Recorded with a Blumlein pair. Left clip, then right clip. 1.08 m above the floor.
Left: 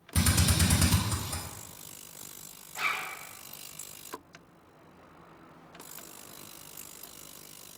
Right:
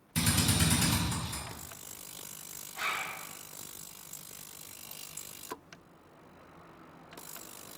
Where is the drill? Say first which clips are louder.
Left 1 dB; 50° left, 1.3 m.